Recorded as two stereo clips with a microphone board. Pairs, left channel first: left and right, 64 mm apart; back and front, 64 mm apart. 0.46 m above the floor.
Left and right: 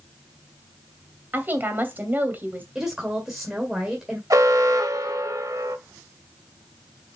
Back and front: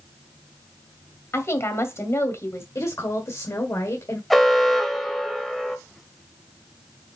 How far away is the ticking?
I don't hear ticking.